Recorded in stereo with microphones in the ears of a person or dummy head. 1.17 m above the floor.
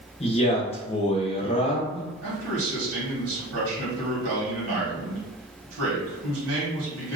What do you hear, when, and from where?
0.2 s a man speaking: 30° left (ahead or behind), 0.9 m
2.2 s a man speaking: 75° right (ahead or behind), 1.6 m